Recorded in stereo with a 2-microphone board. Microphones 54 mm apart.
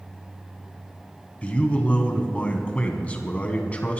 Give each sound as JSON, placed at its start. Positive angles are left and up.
{"t": 1.4, "sound": "a man speaking", "side_deg": 25, "distance_m": 1.7}